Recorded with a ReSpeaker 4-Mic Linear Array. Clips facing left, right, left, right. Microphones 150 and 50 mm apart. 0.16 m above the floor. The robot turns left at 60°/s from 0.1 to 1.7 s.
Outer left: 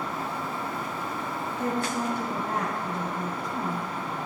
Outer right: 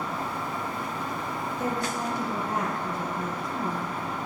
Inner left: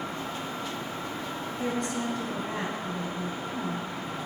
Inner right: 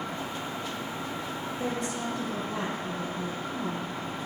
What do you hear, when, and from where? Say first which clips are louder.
1.6 s a woman speaking: outer left 2 dB, inner left 2 dB; 60° left (ahead or behind), 2.5 m